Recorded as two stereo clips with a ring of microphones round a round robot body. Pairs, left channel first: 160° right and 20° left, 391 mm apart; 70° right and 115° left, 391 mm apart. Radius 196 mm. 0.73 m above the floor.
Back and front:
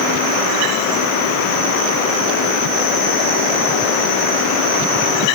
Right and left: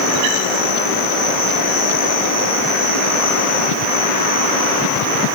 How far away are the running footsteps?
No running footsteps in this recording.